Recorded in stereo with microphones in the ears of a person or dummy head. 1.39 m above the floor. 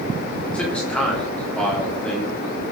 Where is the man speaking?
Centre (ahead or behind), 3 m.